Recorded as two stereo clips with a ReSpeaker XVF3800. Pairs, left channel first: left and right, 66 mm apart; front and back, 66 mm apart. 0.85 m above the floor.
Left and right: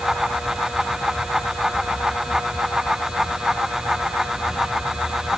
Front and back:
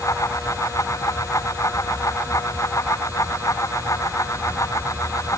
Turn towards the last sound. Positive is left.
No sound to turn to.